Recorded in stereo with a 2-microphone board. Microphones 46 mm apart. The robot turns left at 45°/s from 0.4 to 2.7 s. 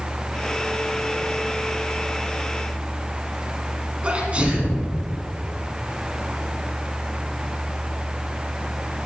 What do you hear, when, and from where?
4.0 s a sneeze: 30° right (ahead or behind), 1.2 m